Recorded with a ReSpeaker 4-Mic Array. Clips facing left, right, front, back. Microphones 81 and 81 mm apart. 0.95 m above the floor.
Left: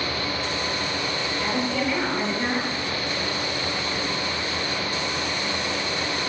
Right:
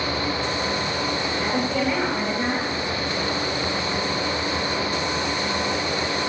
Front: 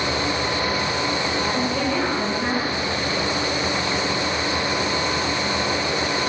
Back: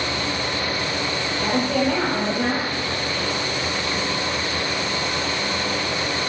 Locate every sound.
1.4 s a woman speaking: 165° right, 6 m